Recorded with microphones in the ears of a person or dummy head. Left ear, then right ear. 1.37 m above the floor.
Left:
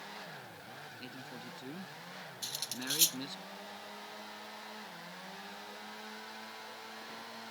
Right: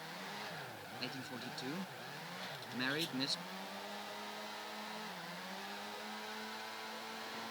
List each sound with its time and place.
1.0 s a man speaking: 15° right (ahead or behind)
2.4 s cutlery clinking: 70° left (ahead or behind)